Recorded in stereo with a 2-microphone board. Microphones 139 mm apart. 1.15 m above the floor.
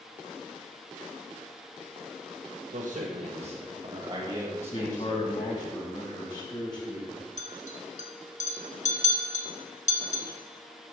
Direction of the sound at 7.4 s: 60° left (ahead or behind).